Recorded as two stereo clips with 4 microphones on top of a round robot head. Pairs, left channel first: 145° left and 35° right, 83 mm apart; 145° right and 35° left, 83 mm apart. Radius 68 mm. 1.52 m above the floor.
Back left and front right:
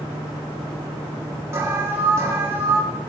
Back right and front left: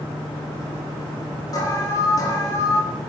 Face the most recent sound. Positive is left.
turn(degrees=-95)